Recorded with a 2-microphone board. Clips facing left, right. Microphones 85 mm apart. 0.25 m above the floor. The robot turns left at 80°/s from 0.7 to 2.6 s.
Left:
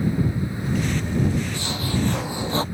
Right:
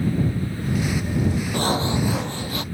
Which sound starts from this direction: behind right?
Sawing, at 1.5 s.